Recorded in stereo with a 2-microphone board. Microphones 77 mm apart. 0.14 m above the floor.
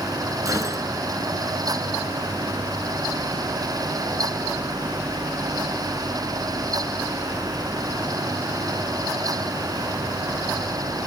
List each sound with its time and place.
0.5 s a gunshot: 45° right (ahead or behind), 2 m